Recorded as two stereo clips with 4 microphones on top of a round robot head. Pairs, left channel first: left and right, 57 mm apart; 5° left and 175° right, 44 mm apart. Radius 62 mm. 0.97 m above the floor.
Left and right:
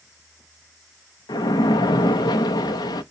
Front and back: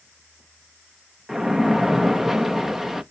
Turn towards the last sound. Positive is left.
turn(degrees=105)